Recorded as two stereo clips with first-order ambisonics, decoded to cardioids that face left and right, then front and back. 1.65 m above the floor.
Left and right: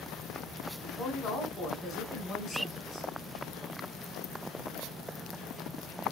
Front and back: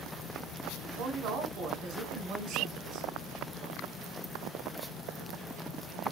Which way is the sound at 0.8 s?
145° left.